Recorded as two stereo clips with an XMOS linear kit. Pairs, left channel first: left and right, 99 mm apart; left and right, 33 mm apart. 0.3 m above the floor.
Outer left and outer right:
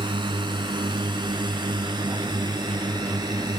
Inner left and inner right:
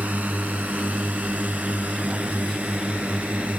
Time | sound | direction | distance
0.0 | a drone | 55° right (ahead or behind) | ?